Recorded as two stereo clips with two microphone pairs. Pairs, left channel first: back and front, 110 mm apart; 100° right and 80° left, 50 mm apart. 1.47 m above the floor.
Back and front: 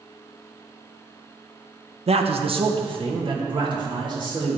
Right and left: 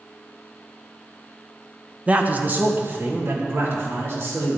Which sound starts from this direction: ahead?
A man speaking, at 2.1 s.